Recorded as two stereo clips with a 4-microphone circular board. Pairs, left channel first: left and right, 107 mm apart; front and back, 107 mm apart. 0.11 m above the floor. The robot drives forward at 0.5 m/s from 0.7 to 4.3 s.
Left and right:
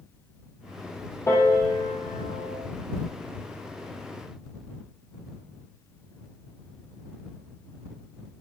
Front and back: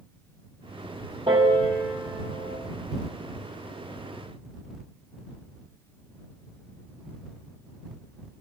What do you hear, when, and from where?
1.3 s a piano: 150° left, 3 m; by 2.6 s 155° left, 4 m